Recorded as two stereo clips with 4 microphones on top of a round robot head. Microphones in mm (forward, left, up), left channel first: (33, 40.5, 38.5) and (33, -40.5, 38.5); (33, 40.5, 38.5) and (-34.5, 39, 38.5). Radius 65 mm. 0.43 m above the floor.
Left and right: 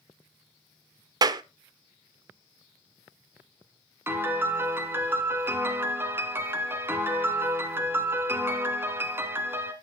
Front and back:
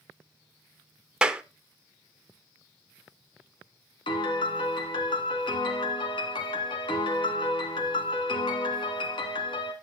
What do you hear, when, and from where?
1.2 s a clap: 105° right, 0.7 m
4.1 s a piano: 25° right, 1.6 m